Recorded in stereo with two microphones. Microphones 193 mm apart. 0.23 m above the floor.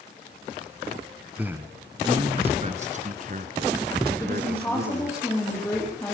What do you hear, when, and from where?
1.4 s a man speaking: 5° right (ahead or behind), 1.7 m; by 5.2 s 60° right (ahead or behind), 3.5 m
4.2 s a woman speaking: 15° left (ahead or behind), 8.5 m